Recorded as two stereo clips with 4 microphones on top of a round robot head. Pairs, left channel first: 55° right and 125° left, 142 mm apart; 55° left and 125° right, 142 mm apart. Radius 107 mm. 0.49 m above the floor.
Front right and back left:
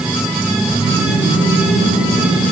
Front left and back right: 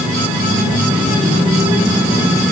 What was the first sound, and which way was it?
Only background noise.